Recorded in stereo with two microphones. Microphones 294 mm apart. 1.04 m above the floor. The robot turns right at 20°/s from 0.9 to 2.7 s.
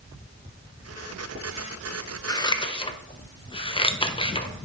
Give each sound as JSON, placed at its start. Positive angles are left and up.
{"t": 2.3, "sound": "scissors", "side_deg": 10, "distance_m": 0.5}